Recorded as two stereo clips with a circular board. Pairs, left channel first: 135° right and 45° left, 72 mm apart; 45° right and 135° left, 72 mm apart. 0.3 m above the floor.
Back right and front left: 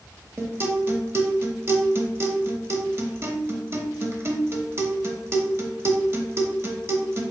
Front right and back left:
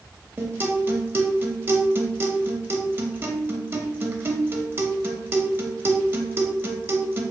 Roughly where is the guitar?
Left.